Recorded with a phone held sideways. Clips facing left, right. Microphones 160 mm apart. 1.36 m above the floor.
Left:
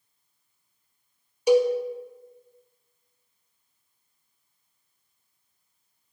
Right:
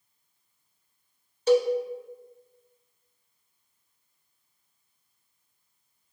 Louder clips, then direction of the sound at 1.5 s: Left 2 dB; 10° left (ahead or behind).